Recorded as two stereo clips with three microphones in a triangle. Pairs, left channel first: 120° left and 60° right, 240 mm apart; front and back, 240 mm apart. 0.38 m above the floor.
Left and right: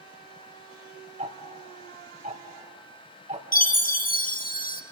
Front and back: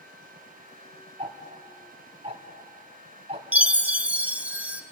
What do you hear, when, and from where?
1.2 s ticking: 120° right, 3 m
3.5 s a chime: 100° left, 1.4 m